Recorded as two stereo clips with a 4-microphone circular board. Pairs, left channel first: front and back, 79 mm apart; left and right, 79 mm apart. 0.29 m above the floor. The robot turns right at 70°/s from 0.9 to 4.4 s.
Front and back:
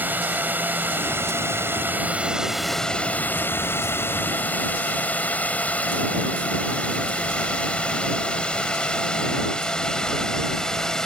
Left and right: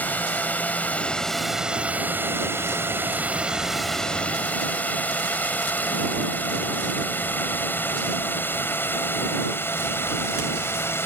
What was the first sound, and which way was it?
A drone, 140° left.